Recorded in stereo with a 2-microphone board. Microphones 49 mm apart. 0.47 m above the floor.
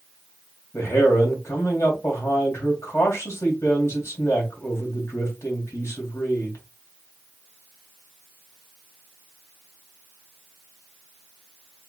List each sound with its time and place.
0.7 s a man speaking: 70° left (ahead or behind), 2.5 m